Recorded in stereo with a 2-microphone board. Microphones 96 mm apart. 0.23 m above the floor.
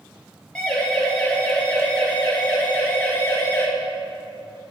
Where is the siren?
10° left (ahead or behind), 5 m; by 3.7 s 25° left (ahead or behind), 3.5 m.